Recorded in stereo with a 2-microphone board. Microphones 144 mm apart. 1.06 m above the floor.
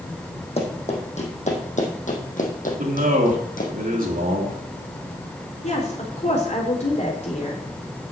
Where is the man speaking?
70° right (ahead or behind), 3 m.